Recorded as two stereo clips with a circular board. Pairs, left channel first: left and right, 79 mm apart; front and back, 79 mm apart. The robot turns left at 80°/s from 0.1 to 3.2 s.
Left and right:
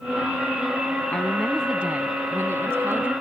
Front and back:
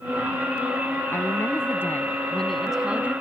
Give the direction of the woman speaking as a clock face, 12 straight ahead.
11 o'clock.